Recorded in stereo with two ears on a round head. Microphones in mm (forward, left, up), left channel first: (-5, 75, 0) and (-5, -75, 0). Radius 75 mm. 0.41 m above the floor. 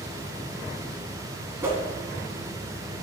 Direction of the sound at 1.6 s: 15° right (ahead or behind).